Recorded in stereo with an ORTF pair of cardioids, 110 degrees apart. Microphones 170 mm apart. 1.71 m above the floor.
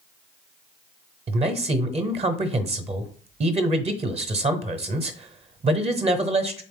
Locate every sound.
1.3 s a man speaking: 35° right, 0.8 m